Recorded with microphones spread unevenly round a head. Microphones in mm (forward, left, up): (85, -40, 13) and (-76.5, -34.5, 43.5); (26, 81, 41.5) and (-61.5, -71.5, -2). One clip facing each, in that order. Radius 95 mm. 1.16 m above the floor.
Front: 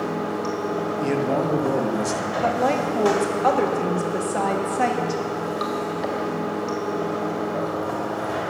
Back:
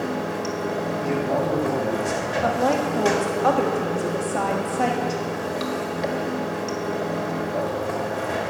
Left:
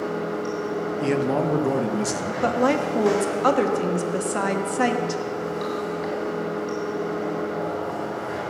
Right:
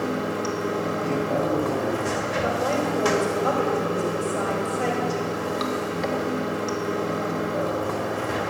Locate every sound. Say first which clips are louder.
0.0 s running water: front 1 dB, right 1 dB; 120° right, 1.6 m
1.0 s a man speaking: front 2 dB, left 4 dB; 60° left, 1.0 m
2.4 s a woman speaking: even, left 5 dB; 75° left, 1.3 m